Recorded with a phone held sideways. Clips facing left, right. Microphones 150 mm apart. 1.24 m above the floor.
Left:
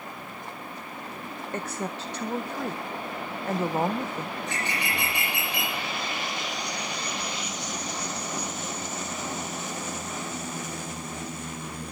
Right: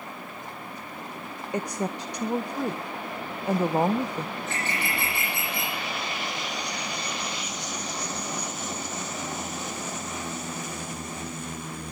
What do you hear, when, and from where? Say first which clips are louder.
1.5 s a woman speaking: right 4 dB; 15° right (ahead or behind), 0.6 m
4.4 s a bird: even; 15° left (ahead or behind), 8 m